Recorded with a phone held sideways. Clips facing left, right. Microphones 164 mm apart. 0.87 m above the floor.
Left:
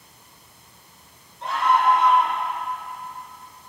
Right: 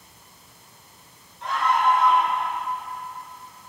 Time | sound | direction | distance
1.4 | a scream | 35° left (ahead or behind) | 4 m